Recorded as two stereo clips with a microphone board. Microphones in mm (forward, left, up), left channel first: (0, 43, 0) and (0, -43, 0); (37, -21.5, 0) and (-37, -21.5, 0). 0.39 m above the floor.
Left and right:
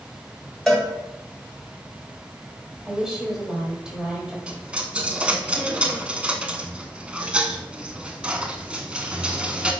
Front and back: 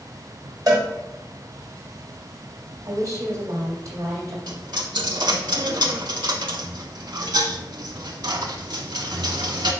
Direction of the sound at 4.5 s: 165° right.